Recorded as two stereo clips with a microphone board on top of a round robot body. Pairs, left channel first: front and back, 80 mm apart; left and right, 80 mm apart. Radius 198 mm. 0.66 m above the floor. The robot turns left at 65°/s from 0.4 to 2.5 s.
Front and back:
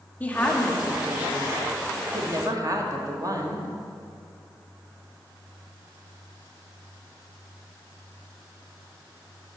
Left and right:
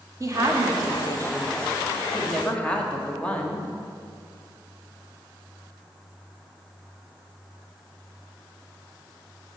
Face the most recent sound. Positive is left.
turn(degrees=160)